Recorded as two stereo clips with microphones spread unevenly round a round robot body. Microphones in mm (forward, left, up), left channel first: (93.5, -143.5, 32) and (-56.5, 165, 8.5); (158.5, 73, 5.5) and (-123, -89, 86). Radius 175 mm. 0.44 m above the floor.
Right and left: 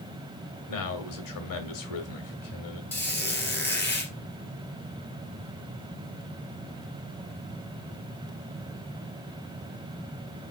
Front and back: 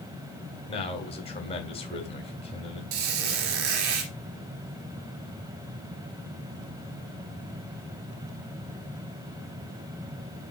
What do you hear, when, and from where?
0.7 s a man speaking: 35° right, 2 m
2.9 s a squeak: 150° right, 3 m